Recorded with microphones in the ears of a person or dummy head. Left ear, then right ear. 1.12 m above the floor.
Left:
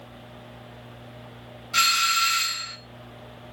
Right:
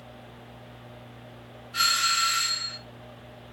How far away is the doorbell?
About 1.8 m.